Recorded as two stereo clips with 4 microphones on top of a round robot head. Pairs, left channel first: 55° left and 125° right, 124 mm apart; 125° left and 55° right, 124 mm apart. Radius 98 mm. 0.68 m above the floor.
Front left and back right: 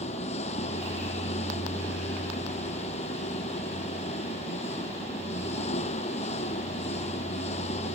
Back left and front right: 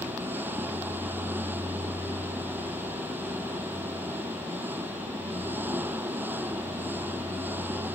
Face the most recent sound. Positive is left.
turn(degrees=20)